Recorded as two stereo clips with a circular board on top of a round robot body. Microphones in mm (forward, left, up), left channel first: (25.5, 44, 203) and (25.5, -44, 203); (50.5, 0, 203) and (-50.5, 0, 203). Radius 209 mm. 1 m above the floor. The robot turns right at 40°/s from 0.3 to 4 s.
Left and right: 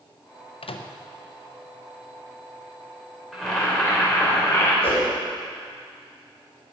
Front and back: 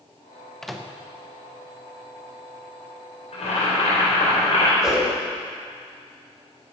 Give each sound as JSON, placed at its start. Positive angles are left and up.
{"t": 0.6, "sound": "a microwave", "azimuth_deg": 85, "distance_m": 0.9}
{"t": 3.3, "sound": "boiling", "azimuth_deg": 0, "distance_m": 4.0}
{"t": 4.8, "sound": "a whoosh", "azimuth_deg": 95, "distance_m": 5.5}